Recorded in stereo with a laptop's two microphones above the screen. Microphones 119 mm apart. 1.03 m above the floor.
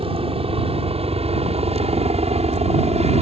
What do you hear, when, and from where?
0.0 s a helicopter: 55° right (ahead or behind); by 3.2 s 65° right (ahead or behind)